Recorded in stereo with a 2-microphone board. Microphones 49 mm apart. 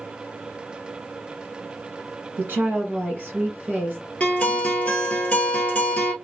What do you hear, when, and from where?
2.4 s a woman speaking: 40° right (ahead or behind), 1.7 m
4.2 s a guitar: 30° left (ahead or behind), 0.9 m